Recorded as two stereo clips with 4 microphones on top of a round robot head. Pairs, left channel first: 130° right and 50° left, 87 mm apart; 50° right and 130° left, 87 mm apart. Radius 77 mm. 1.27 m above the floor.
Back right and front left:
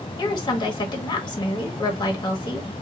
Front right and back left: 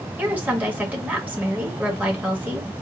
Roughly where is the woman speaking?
Behind.